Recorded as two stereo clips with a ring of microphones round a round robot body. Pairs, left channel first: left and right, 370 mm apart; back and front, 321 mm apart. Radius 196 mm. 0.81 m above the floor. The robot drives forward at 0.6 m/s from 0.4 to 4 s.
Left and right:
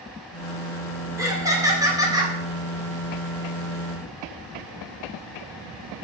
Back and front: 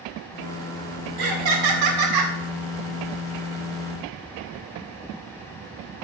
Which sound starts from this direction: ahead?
Laughter, at 1.2 s.